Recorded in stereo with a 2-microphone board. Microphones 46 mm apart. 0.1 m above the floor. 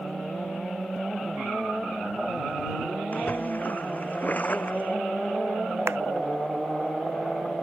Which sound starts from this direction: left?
A splash, at 3.1 s.